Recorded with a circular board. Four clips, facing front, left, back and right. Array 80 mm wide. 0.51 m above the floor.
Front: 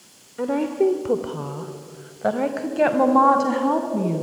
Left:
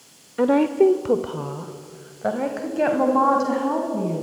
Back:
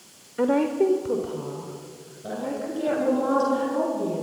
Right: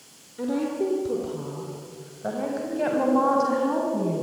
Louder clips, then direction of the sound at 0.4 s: Left 9 dB, even; 105° left.